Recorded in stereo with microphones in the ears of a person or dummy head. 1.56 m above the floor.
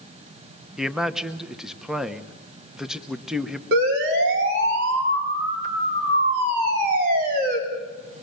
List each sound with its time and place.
0.8 s a man speaking: 5° right (ahead or behind), 1.0 m
3.7 s a siren: 75° right (ahead or behind), 5.5 m; by 7.6 s 55° right (ahead or behind), 4.5 m